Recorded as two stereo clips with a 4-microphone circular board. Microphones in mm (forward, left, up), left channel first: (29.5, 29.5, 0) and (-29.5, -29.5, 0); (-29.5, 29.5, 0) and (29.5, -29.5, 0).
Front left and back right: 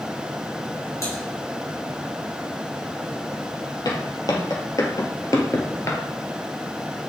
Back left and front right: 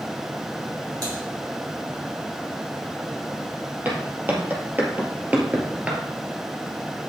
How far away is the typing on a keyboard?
About 3.5 m.